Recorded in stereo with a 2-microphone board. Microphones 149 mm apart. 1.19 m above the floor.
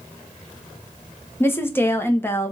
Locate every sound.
1.4 s a woman speaking: 15° left (ahead or behind), 1.1 m